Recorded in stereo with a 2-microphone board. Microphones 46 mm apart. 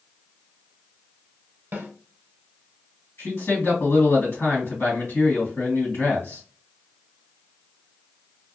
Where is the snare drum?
45° right (ahead or behind), 0.9 m.